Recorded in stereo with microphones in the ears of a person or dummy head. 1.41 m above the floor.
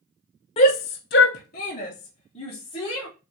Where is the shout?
25° left (ahead or behind), 0.6 m; by 3.1 s 30° left (ahead or behind), 1.5 m.